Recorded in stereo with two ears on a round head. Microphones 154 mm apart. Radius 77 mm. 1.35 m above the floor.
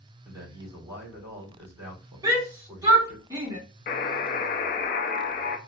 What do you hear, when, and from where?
0.2 s a man speaking: 20° right (ahead or behind), 3 m
2.2 s a shout: 20° right (ahead or behind), 1.8 m
3.9 s a buzzer: 55° left (ahead or behind), 0.7 m